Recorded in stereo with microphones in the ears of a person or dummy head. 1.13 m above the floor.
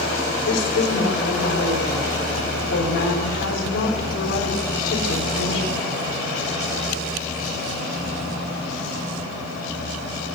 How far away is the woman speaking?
About 6 m.